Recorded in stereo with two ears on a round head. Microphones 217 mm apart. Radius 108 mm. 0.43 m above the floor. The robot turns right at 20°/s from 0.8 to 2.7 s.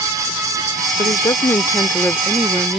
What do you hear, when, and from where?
1.0 s a woman speaking: 145° left; by 2.8 s straight behind